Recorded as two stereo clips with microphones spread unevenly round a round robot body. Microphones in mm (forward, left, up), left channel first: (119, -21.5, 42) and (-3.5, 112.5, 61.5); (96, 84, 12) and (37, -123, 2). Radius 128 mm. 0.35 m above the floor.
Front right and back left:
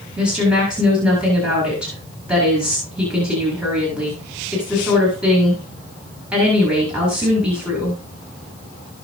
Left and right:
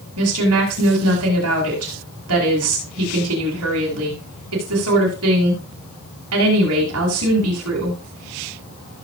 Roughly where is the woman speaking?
Behind right.